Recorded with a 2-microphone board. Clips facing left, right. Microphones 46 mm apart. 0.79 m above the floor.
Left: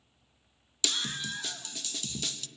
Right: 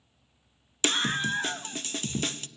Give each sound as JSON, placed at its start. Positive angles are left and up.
{"t": 0.8, "sound": "a scream", "side_deg": -45, "distance_m": 0.6}